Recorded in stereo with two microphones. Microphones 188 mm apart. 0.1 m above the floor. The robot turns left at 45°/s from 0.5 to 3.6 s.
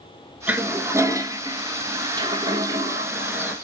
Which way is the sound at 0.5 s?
10° right (ahead or behind).